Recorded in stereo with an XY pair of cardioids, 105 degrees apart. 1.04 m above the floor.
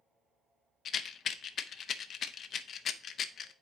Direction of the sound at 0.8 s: 55° left.